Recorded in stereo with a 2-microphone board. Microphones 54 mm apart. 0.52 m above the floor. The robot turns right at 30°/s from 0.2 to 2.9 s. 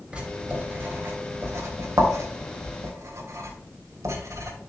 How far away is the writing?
About 3 m.